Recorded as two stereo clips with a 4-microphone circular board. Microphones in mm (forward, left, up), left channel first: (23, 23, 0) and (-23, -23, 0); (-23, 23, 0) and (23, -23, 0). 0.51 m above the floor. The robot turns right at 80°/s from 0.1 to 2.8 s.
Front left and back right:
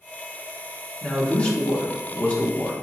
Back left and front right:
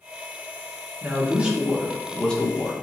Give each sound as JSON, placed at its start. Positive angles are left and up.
{"t": 1.0, "sound": "a man speaking", "azimuth_deg": -35, "distance_m": 0.7}